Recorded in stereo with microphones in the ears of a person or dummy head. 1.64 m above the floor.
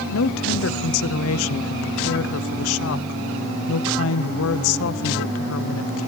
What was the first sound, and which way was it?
A woman speaking, 75° left (ahead or behind).